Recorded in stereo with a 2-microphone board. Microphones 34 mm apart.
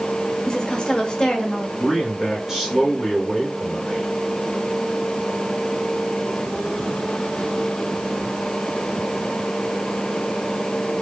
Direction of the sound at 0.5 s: 25° left (ahead or behind).